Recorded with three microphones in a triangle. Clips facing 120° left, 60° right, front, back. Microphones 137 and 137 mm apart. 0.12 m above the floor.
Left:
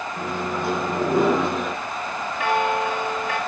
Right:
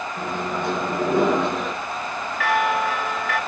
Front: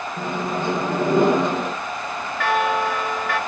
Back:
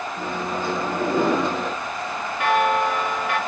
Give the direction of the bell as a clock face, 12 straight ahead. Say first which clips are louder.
Even, back 1 dB; 7 o'clock.